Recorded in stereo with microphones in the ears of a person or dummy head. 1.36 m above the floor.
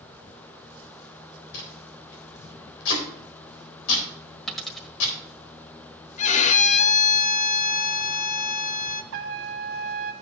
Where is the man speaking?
No man speaking in this recording.